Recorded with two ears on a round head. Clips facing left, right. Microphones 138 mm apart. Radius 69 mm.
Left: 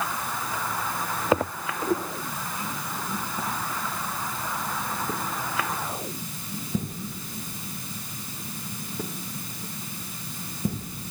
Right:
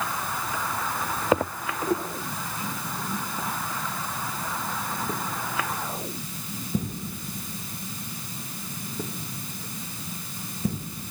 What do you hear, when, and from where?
Only background noise.